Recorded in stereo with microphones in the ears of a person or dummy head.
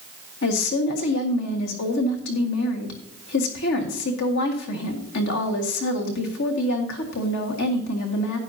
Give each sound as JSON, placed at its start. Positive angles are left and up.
{"t": 0.4, "sound": "a woman speaking", "side_deg": 65, "distance_m": 1.7}